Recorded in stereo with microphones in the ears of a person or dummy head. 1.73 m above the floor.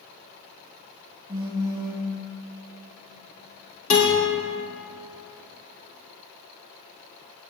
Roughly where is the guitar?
Left.